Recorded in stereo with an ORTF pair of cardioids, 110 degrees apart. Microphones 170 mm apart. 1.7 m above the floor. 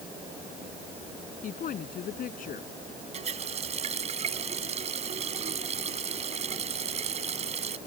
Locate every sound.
1.4 s a woman speaking: 55° left
3.1 s a running tap: 40° right